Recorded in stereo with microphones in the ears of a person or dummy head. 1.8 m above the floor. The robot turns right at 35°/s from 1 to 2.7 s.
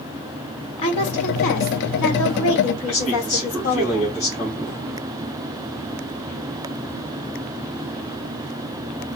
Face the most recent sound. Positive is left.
turn(degrees=35)  # may be behind; listen again after turning